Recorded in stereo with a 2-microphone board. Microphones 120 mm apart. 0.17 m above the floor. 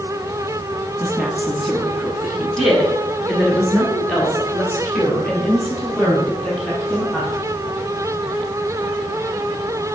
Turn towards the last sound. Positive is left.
turn(degrees=5)  # may be behind; listen again after turning